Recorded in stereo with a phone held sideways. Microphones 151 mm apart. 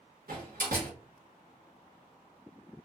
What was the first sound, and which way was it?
A door slam, 75° right (ahead or behind).